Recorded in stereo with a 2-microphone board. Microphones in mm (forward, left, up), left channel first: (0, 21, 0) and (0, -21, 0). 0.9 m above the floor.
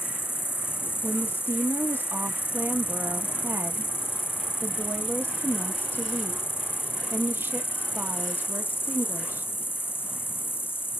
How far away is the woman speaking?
About 1.1 m.